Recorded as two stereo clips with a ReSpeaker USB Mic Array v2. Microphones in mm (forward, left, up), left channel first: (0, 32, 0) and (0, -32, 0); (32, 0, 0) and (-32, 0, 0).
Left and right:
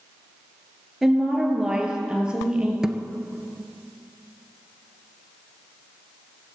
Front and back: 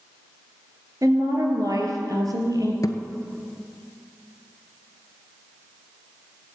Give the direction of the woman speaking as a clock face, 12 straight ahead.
6 o'clock.